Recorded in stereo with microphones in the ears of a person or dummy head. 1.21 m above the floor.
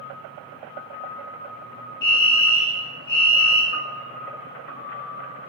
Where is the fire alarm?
55° left (ahead or behind), 4 m.